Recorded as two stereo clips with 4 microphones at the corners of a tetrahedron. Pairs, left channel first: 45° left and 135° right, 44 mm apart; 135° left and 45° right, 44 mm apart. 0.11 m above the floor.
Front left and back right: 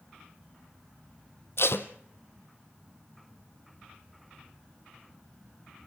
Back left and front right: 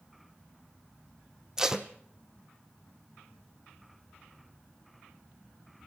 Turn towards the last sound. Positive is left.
turn(degrees=30)